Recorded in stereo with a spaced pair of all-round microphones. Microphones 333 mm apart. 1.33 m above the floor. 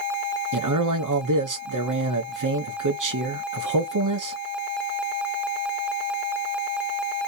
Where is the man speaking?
65° right (ahead or behind), 0.7 m.